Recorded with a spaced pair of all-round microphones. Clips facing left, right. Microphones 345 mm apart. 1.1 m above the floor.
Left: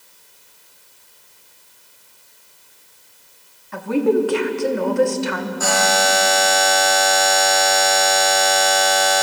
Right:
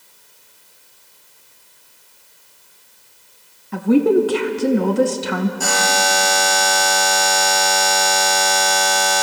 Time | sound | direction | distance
3.7 | a woman speaking | 45° right (ahead or behind) | 0.9 m
5.6 | a buzzer | 40° right (ahead or behind) | 1.7 m